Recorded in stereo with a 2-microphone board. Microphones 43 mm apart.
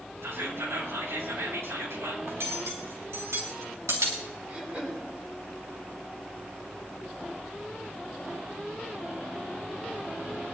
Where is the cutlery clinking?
85° right, 5.5 m.